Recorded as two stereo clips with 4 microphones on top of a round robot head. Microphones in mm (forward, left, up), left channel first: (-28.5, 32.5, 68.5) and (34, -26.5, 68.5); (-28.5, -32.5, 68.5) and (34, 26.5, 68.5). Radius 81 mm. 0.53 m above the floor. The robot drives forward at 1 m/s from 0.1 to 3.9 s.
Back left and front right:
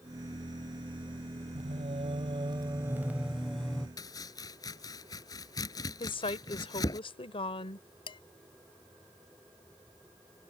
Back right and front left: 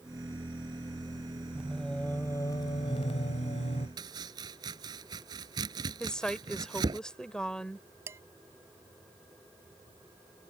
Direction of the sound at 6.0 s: 140° left.